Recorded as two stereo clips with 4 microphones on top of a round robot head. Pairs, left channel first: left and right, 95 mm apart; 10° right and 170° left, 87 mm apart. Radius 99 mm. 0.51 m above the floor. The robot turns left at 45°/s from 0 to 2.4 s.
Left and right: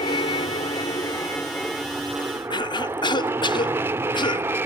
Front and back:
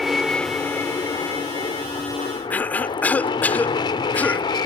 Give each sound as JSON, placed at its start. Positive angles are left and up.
{"t": 0.0, "sound": "an aircraft", "azimuth_deg": 80}
{"t": 2.5, "sound": "a cough", "azimuth_deg": 60}